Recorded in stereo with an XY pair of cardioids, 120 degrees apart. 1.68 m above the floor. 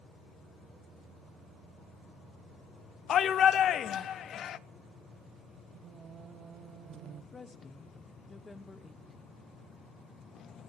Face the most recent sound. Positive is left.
turn(degrees=20)